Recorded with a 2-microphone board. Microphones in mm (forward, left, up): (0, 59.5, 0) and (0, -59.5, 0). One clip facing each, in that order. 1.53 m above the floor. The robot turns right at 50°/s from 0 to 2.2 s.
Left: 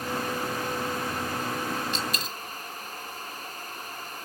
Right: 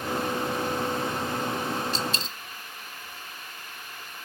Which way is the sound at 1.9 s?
35° right (ahead or behind).